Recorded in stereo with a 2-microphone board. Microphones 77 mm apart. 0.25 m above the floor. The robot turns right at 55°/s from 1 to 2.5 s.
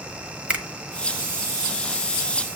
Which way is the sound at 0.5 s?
15° right (ahead or behind).